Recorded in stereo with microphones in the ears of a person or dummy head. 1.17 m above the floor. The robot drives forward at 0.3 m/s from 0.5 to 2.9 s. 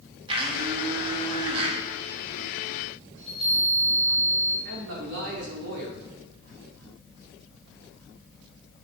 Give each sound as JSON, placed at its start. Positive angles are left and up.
{"t": 0.3, "sound": "a blender", "side_deg": -30, "distance_m": 2.0}
{"t": 3.2, "sound": "a chime", "side_deg": -35, "distance_m": 3.0}
{"t": 4.7, "sound": "a man speaking", "side_deg": -60, "distance_m": 2.5}